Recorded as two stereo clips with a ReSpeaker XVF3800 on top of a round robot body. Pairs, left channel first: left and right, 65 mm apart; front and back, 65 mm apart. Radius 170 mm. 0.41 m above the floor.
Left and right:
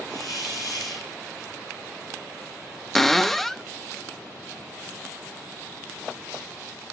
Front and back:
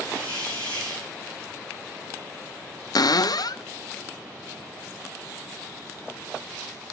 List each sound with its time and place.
0.1 s a hiss: 125° left, 9.5 m
3.0 s a cupboard door: 5° left, 0.7 m